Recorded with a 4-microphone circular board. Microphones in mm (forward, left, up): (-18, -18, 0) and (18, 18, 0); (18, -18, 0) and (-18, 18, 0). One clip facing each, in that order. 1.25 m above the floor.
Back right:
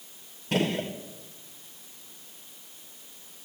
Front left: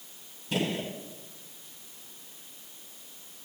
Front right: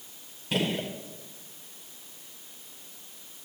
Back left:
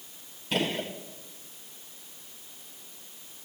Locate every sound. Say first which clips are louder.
0.5 s a gunshot: back right 3 dB, even; 135° right, 1.3 m